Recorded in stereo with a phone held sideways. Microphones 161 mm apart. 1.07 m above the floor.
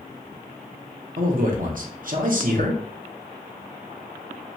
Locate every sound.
1.2 s a man speaking: 60° right (ahead or behind), 0.8 m